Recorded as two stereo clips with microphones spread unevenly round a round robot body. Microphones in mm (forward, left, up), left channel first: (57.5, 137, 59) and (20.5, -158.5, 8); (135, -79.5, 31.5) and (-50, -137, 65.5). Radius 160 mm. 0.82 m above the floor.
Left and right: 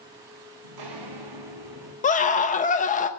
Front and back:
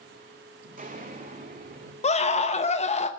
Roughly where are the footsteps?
Behind right.